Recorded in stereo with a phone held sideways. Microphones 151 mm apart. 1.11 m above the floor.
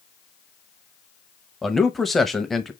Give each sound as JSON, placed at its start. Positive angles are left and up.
{"t": 1.6, "sound": "a man speaking", "side_deg": 0, "distance_m": 0.9}